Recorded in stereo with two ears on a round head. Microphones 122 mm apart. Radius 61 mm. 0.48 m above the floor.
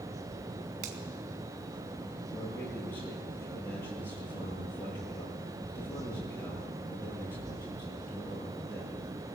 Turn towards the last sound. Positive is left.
turn(degrees=15)  # may be behind; listen again after turning